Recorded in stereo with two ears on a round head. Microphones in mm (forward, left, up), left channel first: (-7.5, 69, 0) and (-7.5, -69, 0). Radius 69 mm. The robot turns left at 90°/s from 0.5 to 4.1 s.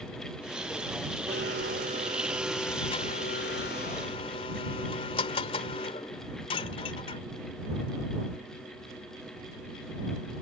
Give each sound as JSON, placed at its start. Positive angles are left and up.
{"t": 1.3, "sound": "a blender", "azimuth_deg": -70}